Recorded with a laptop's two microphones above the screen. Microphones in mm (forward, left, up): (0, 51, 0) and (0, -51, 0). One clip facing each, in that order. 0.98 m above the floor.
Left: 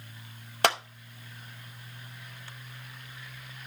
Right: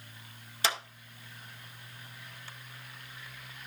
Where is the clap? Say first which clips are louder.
Left 8 dB; 60° left (ahead or behind), 0.7 m.